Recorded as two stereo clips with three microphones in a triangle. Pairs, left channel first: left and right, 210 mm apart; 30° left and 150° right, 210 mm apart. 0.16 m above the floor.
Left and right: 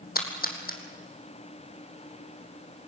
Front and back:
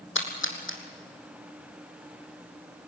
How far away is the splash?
About 3 m.